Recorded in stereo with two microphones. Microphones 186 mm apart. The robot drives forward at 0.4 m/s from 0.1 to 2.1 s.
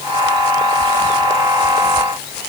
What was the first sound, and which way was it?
Only background noise.